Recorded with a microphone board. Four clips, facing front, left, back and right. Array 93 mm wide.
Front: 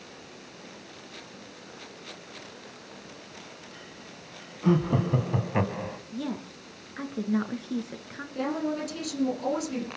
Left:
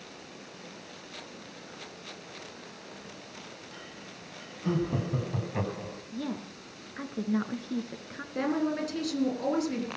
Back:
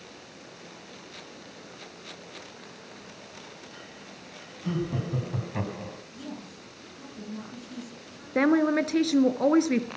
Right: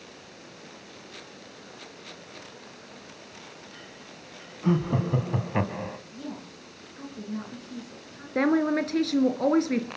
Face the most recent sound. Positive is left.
turn(degrees=-145)